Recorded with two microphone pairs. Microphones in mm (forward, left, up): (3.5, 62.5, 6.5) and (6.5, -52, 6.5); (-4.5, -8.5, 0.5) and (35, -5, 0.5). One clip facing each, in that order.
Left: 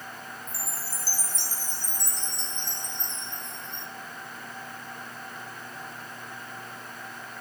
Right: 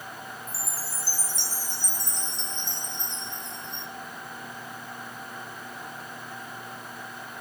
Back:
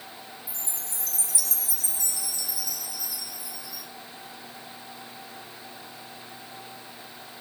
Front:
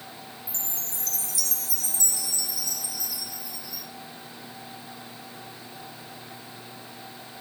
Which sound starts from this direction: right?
A chime, at 0.5 s.